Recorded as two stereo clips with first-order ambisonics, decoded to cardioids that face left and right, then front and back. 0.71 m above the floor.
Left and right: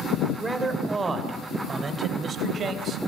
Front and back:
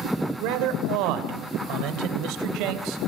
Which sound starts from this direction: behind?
A man speaking, at 0.4 s.